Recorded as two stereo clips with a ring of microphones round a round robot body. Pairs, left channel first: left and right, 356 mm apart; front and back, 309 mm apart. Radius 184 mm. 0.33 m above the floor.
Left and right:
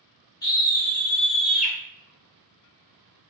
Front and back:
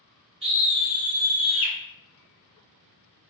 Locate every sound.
0.4 s a scream: 150° left, 0.9 m; by 1.8 s 5° right, 1.2 m